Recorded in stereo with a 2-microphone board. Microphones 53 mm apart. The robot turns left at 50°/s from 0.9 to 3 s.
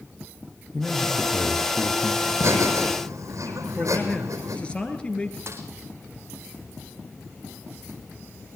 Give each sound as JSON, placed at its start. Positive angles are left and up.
{"t": 0.7, "sound": "a man speaking", "azimuth_deg": -170, "distance_m": 3.5}
{"t": 2.2, "sound": "laughter", "azimuth_deg": -55, "distance_m": 4.5}
{"t": 3.8, "sound": "a man speaking", "side_deg": 20, "distance_m": 2.5}
{"t": 5.5, "sound": "a snare drum", "side_deg": -55, "distance_m": 3.0}